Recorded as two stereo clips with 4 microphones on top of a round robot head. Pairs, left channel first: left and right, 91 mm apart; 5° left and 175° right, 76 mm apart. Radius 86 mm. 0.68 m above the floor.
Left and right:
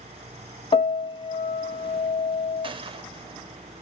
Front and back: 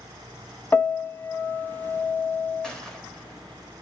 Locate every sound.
0.7 s a piano: 70° left, 0.9 m
2.6 s a gunshot: 75° right, 1.0 m